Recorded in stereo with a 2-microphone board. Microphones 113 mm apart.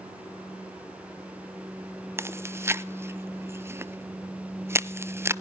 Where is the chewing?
25° right (ahead or behind), 0.5 m.